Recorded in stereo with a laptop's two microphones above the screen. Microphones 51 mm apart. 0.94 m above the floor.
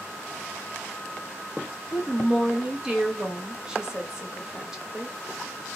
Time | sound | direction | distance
1.9 | a woman speaking | 10° right (ahead or behind) | 1.5 m